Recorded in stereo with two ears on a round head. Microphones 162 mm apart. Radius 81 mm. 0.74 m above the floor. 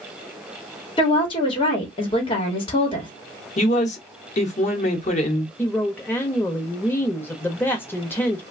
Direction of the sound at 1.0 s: 30° left (ahead or behind).